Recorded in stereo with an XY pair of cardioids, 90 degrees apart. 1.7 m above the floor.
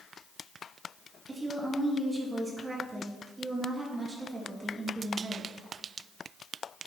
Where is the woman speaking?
30° right, 2 m.